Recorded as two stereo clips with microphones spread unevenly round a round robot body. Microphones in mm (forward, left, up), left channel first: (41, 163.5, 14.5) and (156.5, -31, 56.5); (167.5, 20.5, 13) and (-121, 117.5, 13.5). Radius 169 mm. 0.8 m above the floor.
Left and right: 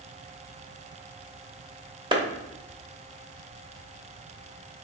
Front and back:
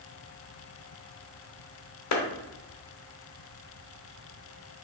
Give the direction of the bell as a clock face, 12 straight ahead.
No bell in this recording.